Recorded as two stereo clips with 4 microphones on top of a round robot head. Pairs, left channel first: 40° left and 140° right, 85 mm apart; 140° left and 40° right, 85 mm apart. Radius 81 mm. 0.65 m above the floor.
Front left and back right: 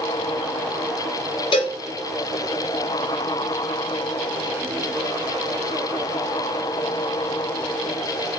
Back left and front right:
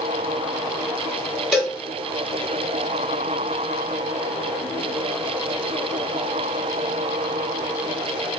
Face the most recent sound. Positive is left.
turn(degrees=45)